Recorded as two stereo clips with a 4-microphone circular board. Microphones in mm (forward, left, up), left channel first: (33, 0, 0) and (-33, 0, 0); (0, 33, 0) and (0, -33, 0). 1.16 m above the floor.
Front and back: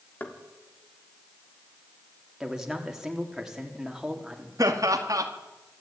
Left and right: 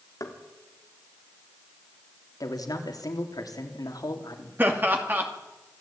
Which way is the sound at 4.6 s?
150° right.